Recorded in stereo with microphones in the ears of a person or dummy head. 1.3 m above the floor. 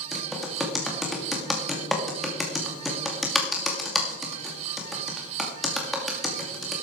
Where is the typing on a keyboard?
5° right (ahead or behind), 2.5 m.